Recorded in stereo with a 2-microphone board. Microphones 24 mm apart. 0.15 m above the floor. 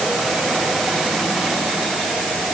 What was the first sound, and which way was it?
Only background noise.